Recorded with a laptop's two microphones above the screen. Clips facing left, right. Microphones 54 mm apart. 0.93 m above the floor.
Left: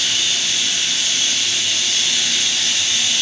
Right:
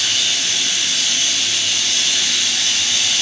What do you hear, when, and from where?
0.0 s running water: 75° right (ahead or behind), 6 m